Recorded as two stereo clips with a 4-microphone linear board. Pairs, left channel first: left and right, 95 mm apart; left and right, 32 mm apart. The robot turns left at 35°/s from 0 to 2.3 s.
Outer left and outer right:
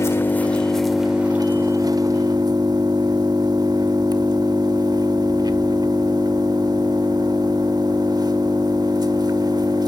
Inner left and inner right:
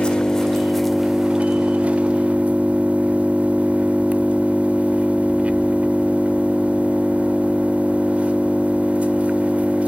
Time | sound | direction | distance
0.0 | an engine running | 30° left | 1.4 m